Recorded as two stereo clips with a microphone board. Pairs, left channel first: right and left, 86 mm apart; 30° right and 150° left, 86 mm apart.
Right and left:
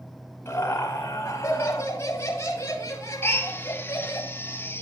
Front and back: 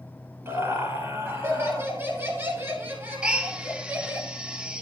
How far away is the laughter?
About 6.5 m.